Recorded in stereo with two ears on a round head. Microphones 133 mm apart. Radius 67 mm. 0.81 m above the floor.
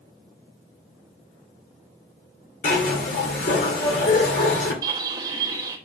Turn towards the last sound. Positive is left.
turn(degrees=-30)  # may be behind; listen again after turning